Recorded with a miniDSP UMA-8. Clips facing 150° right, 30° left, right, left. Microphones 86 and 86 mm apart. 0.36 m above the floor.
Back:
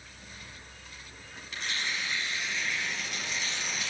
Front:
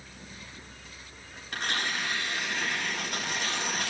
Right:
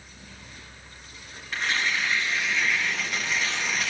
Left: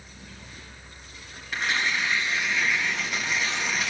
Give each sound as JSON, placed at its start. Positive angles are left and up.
{"t": 1.5, "sound": "tearing paper", "azimuth_deg": 5, "distance_m": 4.0}